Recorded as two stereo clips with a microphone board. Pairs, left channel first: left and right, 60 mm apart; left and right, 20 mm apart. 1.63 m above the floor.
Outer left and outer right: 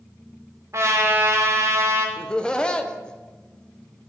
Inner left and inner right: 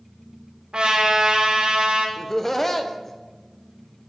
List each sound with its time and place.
0.7 s a trumpet: 55° right (ahead or behind), 1.8 m
2.2 s laughter: 15° left (ahead or behind), 0.7 m